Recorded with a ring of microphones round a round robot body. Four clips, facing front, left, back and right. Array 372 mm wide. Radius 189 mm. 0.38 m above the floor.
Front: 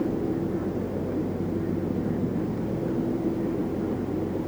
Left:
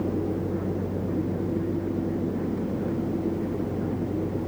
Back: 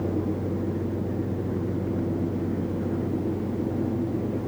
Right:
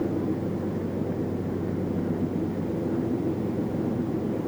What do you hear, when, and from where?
Only background noise.